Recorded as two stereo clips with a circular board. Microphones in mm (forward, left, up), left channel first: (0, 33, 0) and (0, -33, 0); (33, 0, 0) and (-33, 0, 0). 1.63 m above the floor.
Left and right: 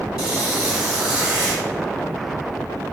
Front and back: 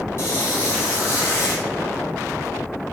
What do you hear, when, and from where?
0.2 s a squeak: 15° right, 2.0 m